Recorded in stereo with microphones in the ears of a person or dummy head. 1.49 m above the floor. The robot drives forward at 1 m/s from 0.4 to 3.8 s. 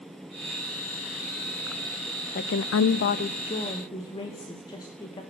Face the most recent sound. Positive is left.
turn(degrees=20)  # may be behind; listen again after turning